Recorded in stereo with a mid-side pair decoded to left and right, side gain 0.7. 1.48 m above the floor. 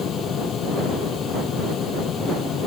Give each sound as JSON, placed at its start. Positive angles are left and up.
{"t": 0.0, "sound": "a fan", "azimuth_deg": 40}